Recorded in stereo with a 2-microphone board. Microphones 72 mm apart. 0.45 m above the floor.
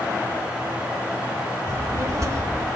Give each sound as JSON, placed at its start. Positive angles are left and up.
{"t": 1.7, "sound": "a child speaking", "side_deg": -45, "distance_m": 0.6}